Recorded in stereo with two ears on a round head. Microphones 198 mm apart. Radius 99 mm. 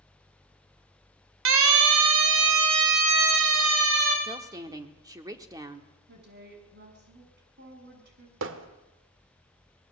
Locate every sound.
1.4 s a siren: 65° right (ahead or behind), 3 m
4.2 s a woman speaking: 15° right (ahead or behind), 1.3 m
6.1 s a woman speaking: 50° right (ahead or behind), 6 m
8.4 s hammering: 60° right (ahead or behind), 1.6 m